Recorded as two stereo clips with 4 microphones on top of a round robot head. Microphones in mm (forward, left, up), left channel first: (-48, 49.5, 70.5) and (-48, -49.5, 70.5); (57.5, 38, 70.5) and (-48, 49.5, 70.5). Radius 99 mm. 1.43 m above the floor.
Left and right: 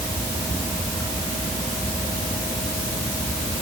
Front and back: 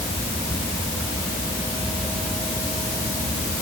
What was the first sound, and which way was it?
Only background noise.